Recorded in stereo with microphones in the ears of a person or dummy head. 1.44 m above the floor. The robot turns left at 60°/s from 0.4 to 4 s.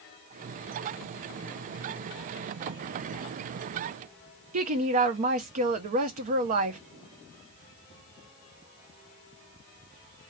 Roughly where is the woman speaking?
Right.